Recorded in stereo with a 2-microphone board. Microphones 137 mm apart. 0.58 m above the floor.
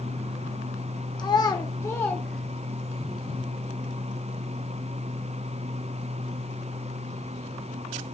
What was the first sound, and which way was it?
A child speaking, 30° left (ahead or behind).